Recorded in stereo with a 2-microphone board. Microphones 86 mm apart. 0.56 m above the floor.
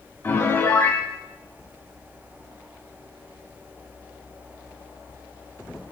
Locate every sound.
0.2 s a piano: 25° left (ahead or behind), 2.5 m